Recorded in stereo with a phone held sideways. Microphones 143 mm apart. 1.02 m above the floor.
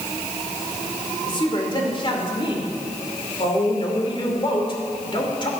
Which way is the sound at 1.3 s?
35° left (ahead or behind).